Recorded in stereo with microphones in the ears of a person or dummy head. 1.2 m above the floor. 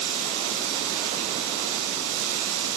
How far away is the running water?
About 8.5 m.